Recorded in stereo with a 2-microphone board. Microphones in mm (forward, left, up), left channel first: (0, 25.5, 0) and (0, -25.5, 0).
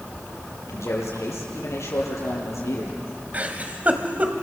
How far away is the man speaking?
About 6.5 m.